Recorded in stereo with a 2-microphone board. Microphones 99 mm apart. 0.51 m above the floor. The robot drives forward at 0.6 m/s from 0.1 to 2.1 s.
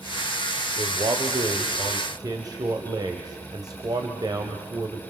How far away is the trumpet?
I don't hear a trumpet.